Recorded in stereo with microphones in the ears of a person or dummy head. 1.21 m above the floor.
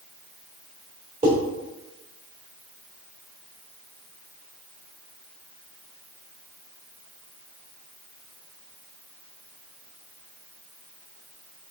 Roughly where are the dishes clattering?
Right.